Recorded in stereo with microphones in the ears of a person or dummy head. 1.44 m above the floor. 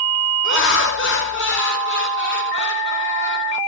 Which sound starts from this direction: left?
Laughter, at 0.4 s.